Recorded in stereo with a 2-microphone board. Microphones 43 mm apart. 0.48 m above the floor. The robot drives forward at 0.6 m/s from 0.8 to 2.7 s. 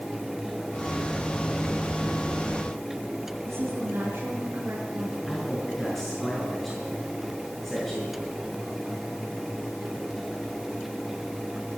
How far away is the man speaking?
About 6 m.